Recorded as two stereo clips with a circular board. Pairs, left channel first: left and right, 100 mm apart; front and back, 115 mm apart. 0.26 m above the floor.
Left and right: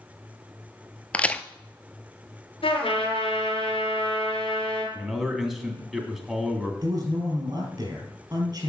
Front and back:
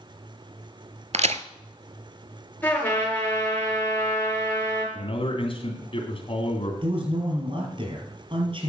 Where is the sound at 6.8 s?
140° right, 5 m.